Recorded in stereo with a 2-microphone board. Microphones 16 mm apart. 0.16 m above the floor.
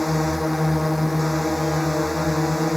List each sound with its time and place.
0.0 s a drone: 10° right (ahead or behind)